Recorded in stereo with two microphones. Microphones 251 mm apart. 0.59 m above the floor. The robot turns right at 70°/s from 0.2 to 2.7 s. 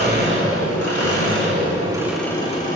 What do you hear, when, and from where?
0.0 s an engine running: 135° right, 4 m; by 2.8 s 40° left, 4 m